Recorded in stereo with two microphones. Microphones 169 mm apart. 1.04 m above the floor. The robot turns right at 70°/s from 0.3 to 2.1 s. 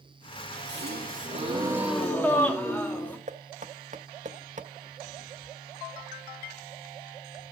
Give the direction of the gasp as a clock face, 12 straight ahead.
3 o'clock.